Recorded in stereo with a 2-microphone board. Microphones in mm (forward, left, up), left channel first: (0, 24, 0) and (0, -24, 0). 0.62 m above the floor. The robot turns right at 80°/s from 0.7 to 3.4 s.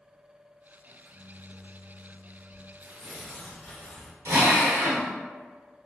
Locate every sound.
0.9 s a microwave: 110° right, 1.3 m; by 2.7 s 40° left, 1.3 m
2.8 s tearing paper: 35° right, 1.6 m; by 4.2 s 15° left, 1.6 m
4.2 s a drill: 80° right, 0.7 m